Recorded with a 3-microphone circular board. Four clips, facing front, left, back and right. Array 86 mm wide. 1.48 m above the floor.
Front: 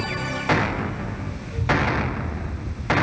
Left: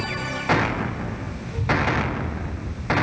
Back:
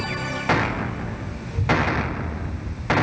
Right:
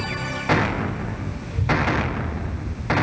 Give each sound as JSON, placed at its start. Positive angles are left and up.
{"t": 1.5, "sound": "a child speaking", "azimuth_deg": -155, "distance_m": 6.5}